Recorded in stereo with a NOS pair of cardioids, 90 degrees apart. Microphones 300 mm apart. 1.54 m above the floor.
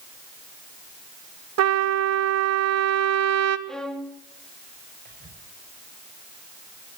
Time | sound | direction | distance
1.6 | a trumpet | 60° right | 2.5 m
3.7 | a violin | straight ahead | 3.5 m
5.0 | whispering | 30° right | 7 m